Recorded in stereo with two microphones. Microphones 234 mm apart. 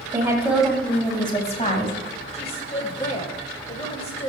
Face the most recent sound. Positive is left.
turn(degrees=25)  # may be behind; listen again after turning